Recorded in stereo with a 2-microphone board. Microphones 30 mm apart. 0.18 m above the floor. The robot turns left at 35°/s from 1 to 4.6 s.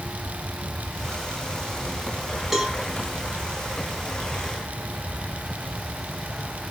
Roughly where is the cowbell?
Centre.